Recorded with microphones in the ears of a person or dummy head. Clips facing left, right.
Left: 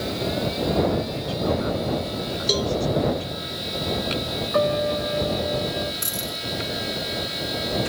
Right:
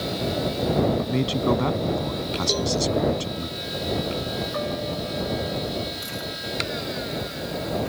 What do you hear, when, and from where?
1.0 s a man speaking: 85° right
2.5 s a cowbell: 15° left (ahead or behind)
4.5 s a piano: 75° left (ahead or behind)
6.0 s a dropped coin: 60° left (ahead or behind)